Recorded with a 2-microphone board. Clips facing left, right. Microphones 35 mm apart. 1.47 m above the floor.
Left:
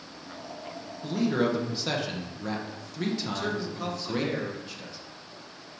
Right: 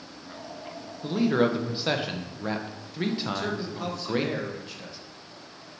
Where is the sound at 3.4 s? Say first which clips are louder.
Even; 10° right (ahead or behind), 1.1 m.